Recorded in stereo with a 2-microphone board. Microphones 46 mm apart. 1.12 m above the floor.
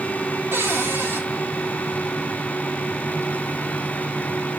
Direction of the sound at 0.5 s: 55° right (ahead or behind).